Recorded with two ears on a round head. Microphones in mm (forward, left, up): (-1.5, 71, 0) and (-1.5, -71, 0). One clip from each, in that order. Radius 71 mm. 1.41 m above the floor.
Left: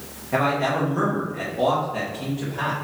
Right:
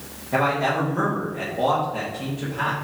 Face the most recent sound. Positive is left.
turn(degrees=20)  # may be behind; listen again after turning